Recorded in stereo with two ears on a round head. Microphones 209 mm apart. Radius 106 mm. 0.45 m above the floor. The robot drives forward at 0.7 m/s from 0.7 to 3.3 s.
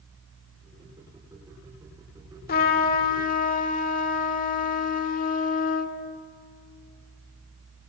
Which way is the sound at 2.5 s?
40° left (ahead or behind).